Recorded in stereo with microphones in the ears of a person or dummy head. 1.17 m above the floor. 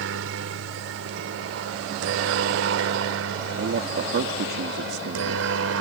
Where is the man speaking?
60° right (ahead or behind).